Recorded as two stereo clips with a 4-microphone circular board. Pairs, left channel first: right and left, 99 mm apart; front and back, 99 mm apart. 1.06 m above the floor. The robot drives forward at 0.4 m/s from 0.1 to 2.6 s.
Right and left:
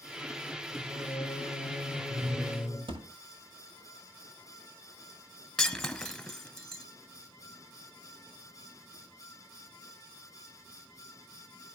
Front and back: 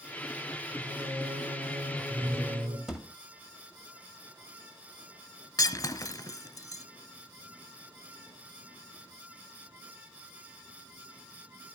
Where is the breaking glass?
5° right, 1.0 m.